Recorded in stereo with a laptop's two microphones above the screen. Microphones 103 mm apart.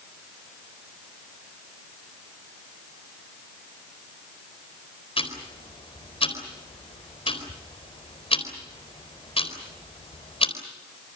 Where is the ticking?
65° left (ahead or behind), 4 m.